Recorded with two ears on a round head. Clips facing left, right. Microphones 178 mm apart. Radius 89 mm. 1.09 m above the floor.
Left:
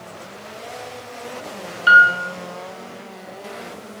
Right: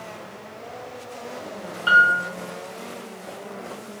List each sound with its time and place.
1.9 s a piano: 20° left (ahead or behind), 0.5 m